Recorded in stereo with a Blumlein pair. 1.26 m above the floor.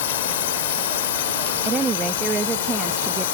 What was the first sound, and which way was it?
A drone, 55° left.